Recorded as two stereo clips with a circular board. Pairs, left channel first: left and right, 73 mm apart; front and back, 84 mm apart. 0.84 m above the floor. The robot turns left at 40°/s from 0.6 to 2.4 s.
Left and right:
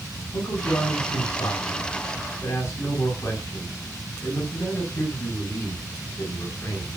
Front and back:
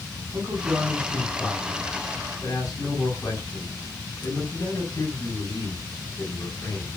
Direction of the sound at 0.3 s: 115° left.